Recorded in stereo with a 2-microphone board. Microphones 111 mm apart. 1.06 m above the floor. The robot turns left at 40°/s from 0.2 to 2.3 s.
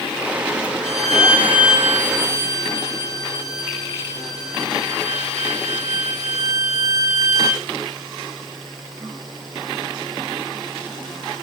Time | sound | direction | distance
0.8 | a violin | 155° left | 3.5 m